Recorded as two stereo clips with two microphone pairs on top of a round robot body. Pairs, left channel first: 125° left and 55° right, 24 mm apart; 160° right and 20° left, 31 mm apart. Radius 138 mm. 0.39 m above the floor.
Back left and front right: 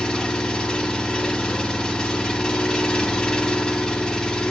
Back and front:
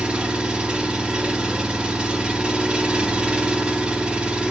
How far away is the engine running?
About 1.7 m.